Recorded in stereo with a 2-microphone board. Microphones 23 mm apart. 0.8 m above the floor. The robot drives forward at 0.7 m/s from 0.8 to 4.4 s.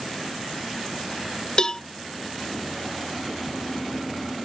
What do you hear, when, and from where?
1.6 s a cowbell: 35° left (ahead or behind); by 1.8 s 30° left (ahead or behind)